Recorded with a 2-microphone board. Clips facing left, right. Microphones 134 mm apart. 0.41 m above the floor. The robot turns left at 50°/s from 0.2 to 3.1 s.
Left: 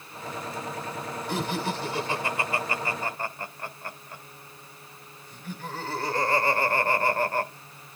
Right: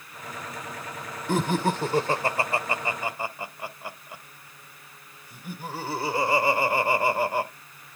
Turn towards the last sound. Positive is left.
turn(degrees=-10)  # may be behind; listen again after turning